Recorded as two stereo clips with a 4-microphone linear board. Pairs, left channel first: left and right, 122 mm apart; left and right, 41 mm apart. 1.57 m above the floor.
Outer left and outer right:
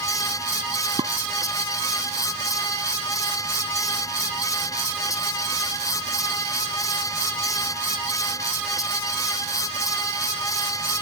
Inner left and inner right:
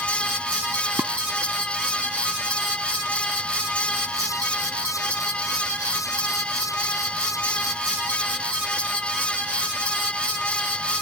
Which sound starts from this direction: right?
Dishes clattering, at 1.0 s.